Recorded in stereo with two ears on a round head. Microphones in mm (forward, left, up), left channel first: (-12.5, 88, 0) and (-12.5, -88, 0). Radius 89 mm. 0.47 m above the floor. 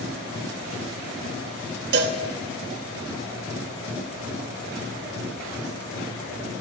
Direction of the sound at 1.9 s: 60° right (ahead or behind).